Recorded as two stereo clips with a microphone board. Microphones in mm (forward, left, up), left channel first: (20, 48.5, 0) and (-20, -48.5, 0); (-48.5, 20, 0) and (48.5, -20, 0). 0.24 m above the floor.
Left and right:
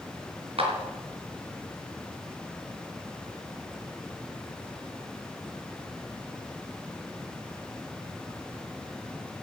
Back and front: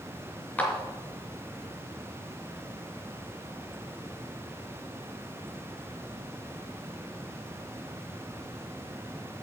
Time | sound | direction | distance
0.6 | a clap | 130° right | 4 m